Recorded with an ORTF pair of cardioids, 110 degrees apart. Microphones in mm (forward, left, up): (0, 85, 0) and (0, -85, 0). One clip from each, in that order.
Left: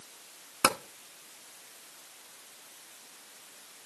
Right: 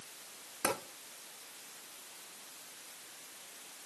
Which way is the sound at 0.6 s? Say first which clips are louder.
Left 8 dB; 65° left.